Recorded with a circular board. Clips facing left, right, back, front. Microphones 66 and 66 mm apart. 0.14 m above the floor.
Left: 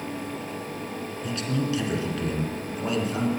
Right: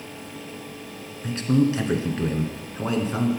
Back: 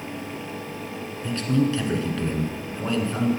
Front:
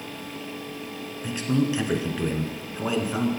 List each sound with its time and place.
1.2 s a man speaking: 65° right, 1.2 m